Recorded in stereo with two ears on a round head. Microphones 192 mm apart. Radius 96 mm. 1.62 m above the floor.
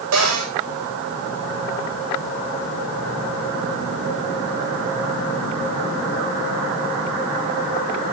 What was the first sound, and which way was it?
A cupboard door, 80° right.